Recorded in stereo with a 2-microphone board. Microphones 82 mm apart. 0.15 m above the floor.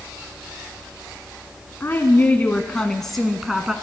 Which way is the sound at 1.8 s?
30° left (ahead or behind).